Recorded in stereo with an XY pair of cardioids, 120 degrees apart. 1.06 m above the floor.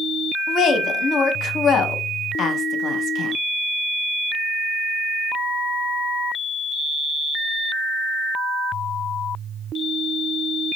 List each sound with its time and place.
0.5 s a woman speaking: 55° left, 0.6 m